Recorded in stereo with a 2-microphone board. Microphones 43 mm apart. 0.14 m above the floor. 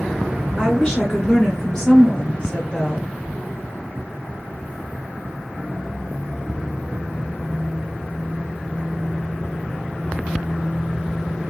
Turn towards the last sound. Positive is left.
turn(degrees=10)  # may be behind; listen again after turning